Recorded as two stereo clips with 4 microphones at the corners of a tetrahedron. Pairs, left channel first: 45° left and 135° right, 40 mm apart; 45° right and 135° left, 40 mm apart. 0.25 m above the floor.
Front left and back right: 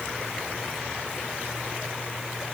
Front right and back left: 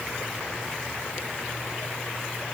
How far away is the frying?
No frying in this recording.